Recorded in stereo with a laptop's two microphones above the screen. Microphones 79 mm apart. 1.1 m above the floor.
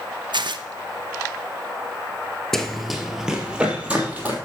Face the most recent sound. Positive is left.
turn(degrees=-20)  # may be behind; listen again after turning